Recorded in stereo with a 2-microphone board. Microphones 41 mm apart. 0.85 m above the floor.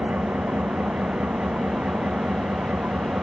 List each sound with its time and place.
0.0 s an engine running: 35° right (ahead or behind)